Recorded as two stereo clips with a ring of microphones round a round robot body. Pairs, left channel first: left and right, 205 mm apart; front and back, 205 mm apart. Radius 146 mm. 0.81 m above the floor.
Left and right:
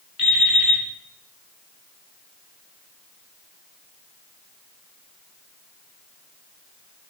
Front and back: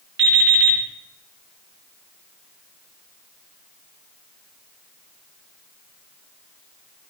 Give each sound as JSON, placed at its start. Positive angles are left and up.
{"t": 0.2, "sound": "an alarm clock", "azimuth_deg": 150, "distance_m": 6.0}